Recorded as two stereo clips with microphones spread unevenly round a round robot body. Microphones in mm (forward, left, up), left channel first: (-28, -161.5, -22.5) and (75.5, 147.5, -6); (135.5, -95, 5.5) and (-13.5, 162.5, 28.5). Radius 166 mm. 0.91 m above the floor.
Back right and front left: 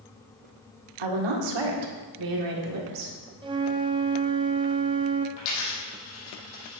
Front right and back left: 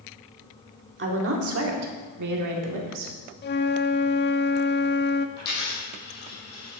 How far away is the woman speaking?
About 2.0 m.